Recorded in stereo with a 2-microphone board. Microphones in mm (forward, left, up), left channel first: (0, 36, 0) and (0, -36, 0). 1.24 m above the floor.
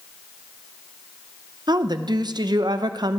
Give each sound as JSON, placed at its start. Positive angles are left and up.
{"t": 1.7, "sound": "a woman speaking", "side_deg": -75, "distance_m": 0.7}